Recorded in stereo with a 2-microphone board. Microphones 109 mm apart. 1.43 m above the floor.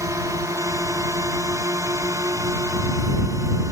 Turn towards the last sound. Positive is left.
turn(degrees=-30)  # may be behind; listen again after turning